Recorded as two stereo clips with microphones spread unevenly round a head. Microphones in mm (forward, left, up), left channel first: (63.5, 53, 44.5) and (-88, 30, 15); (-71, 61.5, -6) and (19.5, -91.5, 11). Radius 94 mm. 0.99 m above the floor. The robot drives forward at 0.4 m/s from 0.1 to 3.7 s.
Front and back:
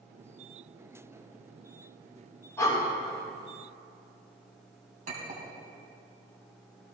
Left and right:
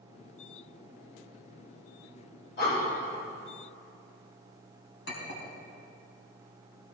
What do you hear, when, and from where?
2.6 s breathing: 80° left, 5 m; by 2.8 s 85° left, 5 m
5.1 s a clink: 150° left, 4 m